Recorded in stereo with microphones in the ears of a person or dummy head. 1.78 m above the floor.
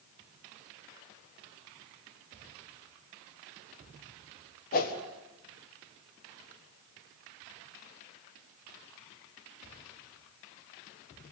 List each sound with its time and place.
4.7 s a whoosh: 50° left (ahead or behind), 1.6 m